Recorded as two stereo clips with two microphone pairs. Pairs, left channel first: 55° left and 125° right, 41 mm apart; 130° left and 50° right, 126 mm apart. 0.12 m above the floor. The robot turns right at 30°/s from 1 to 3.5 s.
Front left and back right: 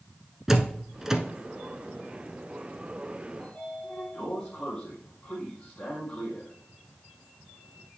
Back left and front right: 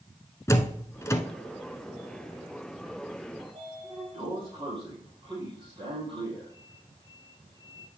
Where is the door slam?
170° left, 0.8 m; by 1.2 s 175° left, 0.8 m.